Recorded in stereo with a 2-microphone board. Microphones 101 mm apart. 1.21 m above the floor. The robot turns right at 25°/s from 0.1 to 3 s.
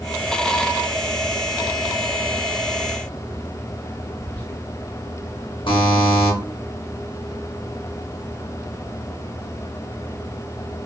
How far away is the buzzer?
About 1.0 m.